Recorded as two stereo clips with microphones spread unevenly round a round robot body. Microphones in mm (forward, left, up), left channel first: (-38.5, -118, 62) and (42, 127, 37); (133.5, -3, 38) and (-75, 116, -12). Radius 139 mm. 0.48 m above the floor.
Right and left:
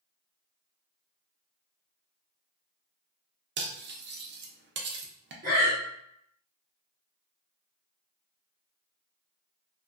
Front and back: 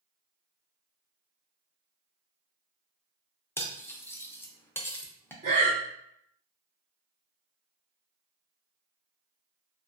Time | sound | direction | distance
3.6 | cutlery clinking | 60° left | 0.5 m
5.4 | breathing | 105° left | 1.2 m